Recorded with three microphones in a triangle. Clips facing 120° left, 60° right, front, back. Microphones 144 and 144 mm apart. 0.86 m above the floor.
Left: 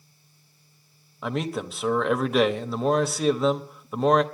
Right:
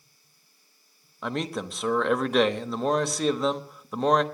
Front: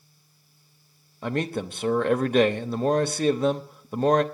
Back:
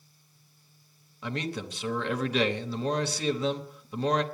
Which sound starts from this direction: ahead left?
A man speaking, at 1.2 s.